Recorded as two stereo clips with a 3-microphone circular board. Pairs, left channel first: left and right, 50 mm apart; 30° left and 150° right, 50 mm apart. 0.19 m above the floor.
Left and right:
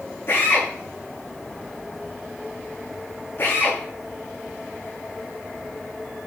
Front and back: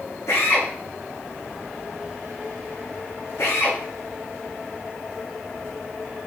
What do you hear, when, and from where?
0.3 s a drill: 50° left, 6 m